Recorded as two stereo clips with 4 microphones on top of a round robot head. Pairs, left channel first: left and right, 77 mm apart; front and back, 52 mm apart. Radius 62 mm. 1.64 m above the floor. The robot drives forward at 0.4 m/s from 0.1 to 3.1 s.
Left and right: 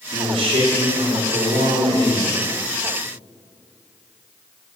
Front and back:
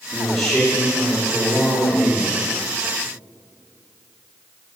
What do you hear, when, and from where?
0.1 s a man speaking: 90° right, 3 m; by 2.4 s 105° right, 3 m